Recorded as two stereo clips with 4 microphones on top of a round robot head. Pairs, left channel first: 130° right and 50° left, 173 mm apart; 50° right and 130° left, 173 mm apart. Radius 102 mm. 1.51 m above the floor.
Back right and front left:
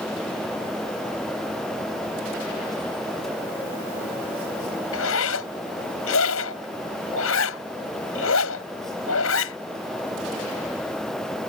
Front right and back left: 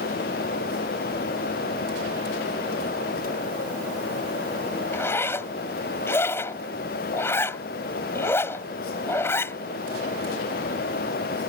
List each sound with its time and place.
4.9 s a zipper: 130° right